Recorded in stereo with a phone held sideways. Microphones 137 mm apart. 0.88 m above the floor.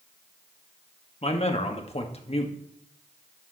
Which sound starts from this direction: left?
A man speaking, at 1.2 s.